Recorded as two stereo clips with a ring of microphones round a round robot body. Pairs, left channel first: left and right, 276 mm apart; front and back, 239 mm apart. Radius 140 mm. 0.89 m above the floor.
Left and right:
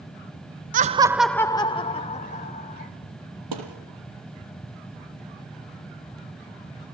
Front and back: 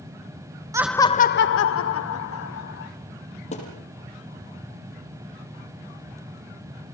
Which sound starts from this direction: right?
A thud, at 3.5 s.